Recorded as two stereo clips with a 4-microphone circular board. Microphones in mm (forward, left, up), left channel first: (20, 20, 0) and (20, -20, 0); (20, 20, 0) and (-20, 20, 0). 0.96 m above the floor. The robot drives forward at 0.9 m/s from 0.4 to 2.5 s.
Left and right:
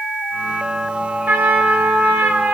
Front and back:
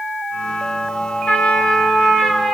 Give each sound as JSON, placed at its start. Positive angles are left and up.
{"t": 1.3, "sound": "a trumpet", "azimuth_deg": -50, "distance_m": 1.3}